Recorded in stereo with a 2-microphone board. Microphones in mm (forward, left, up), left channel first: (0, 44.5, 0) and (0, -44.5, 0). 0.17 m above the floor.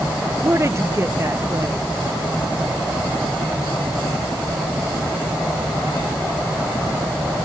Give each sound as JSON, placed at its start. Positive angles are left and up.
{"t": 0.4, "sound": "a woman speaking", "side_deg": -30}